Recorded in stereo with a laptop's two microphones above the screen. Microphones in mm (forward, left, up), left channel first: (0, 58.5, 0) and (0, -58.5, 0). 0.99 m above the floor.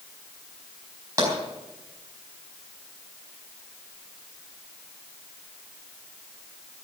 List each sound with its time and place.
1.2 s tapping: 30° right (ahead or behind), 4.5 m